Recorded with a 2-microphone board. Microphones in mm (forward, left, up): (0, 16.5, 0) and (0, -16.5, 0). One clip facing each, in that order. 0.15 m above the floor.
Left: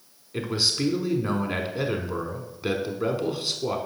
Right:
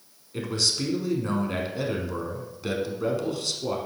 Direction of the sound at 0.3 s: 20° left (ahead or behind).